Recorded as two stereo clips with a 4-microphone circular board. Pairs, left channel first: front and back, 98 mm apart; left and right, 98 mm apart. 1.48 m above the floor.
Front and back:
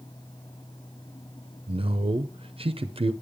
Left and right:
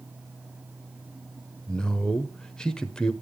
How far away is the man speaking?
About 0.6 m.